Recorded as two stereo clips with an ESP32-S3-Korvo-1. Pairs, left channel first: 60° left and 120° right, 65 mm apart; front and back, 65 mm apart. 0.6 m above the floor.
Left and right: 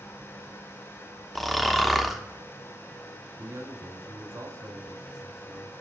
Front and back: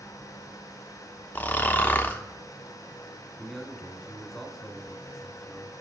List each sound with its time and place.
1.4 s snoring: 25° right, 0.5 m
3.4 s a man speaking: 95° right, 1.2 m